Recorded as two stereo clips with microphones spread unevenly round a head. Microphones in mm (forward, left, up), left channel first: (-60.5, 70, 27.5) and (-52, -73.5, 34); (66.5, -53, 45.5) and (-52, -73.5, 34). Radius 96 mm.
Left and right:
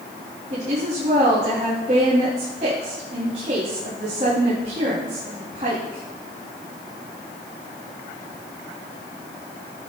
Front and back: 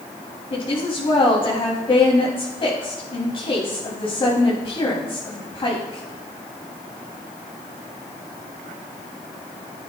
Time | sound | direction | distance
0.5 | a woman speaking | 35° right | 2.5 m